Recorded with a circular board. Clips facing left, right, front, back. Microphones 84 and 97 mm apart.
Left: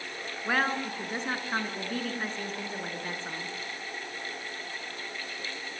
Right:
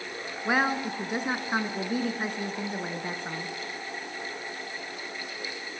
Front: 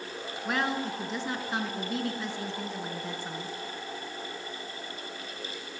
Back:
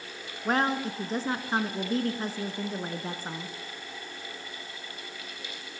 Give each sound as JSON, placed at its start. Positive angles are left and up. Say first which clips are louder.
{"t": 0.5, "sound": "a woman speaking", "louder": "right 3 dB, back 3 dB", "azimuth_deg": -160, "distance_m": 2.0}